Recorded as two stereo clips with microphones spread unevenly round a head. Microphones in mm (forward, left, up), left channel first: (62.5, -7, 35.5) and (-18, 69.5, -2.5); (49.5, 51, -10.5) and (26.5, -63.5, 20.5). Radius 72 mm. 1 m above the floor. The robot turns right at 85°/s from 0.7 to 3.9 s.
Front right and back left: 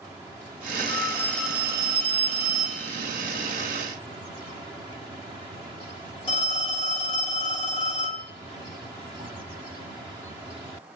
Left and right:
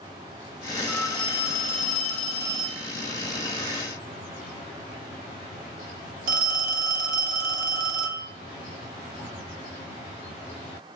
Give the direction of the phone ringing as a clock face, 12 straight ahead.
12 o'clock.